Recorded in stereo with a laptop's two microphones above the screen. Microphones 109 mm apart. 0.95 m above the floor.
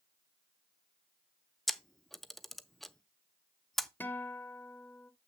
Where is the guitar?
20° left (ahead or behind), 0.9 m.